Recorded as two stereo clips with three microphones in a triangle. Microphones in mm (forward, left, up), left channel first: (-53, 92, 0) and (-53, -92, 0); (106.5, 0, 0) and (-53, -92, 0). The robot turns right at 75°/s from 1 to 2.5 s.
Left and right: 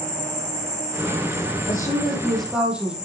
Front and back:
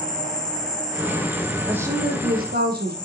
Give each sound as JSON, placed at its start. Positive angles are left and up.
{"t": 0.0, "sound": "an insect", "azimuth_deg": -25, "distance_m": 2.5}
{"t": 1.7, "sound": "a woman speaking", "azimuth_deg": 125, "distance_m": 4.0}